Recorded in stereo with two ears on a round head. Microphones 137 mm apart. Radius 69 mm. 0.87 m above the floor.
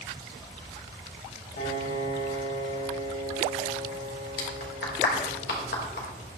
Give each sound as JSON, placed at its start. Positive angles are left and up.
{"t": 1.6, "sound": "a piano", "side_deg": 70, "distance_m": 5.5}
{"t": 4.4, "sound": "a clap", "side_deg": 75, "distance_m": 3.0}